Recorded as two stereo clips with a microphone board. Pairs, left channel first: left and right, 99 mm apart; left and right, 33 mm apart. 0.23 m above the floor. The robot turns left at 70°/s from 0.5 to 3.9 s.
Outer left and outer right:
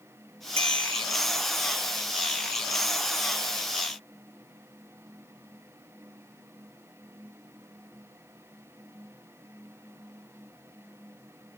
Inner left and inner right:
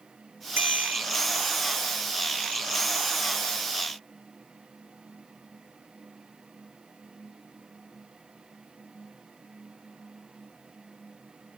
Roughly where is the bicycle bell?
Right.